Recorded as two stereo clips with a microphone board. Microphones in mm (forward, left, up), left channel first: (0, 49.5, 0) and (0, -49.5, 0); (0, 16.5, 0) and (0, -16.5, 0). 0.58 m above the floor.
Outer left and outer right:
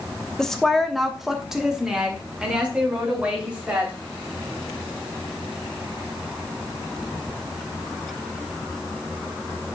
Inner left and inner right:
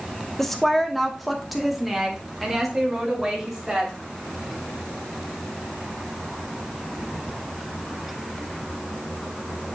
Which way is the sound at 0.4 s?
5° left (ahead or behind).